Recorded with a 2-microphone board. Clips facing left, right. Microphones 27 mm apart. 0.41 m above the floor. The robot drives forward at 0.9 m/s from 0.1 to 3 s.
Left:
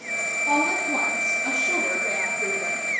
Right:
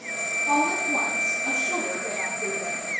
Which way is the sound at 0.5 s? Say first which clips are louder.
Even; 30° left (ahead or behind).